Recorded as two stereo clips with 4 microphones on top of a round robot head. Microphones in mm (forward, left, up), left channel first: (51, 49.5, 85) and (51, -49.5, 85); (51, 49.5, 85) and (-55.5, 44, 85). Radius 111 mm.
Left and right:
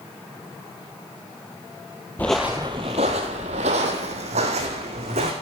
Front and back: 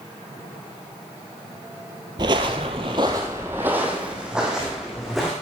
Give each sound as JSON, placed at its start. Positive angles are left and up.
{"t": 2.2, "sound": "footsteps", "azimuth_deg": 165, "distance_m": 0.8}